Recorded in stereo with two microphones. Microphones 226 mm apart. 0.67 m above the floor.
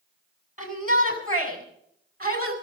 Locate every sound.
0.6 s a shout: 35° right (ahead or behind), 7 m; by 2.5 s 40° right (ahead or behind), 6 m